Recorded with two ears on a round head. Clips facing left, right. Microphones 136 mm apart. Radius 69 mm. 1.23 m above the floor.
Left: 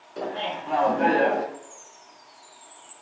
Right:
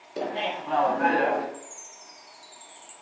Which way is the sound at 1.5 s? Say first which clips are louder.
Even; 45° right (ahead or behind).